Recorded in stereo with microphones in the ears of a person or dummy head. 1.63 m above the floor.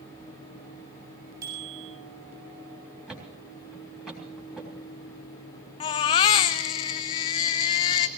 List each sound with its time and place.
1.4 s a bicycle bell: 20° right (ahead or behind), 7.5 m
3.1 s a thud: 5° right (ahead or behind), 3.5 m
5.8 s a baby crying: 25° left (ahead or behind), 0.6 m